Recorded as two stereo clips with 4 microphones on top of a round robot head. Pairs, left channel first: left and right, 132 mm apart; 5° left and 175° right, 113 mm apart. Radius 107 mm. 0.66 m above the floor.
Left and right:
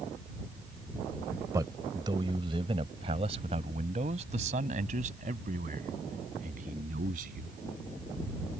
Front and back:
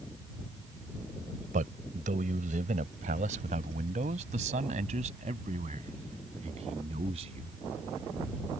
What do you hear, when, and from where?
1.5 s a man speaking: 160° right; by 7.6 s 125° right